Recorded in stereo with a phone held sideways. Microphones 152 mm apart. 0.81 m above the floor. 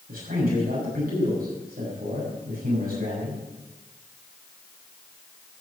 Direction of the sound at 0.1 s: 80° right.